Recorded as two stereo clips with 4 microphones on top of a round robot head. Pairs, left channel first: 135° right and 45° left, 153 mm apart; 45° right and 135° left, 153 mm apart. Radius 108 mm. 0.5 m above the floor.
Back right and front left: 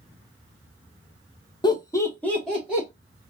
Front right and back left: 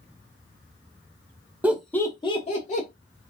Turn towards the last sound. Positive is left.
turn(degrees=-40)